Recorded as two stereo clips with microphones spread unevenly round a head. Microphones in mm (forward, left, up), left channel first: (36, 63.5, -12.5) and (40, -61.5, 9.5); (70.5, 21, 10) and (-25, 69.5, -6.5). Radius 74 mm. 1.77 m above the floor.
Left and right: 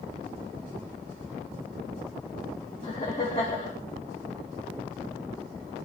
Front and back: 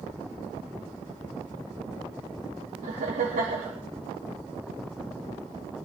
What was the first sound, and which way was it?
Laughter, 150° left.